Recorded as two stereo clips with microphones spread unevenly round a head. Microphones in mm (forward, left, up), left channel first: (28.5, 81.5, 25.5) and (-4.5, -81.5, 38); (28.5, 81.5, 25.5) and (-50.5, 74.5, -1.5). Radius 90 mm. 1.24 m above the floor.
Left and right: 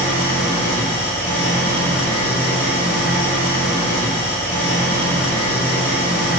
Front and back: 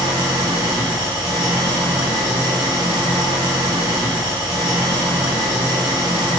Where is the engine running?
160° left, 1.4 m.